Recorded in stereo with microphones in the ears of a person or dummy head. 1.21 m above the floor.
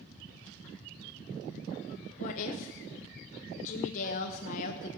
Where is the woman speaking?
45° left (ahead or behind), 0.9 m.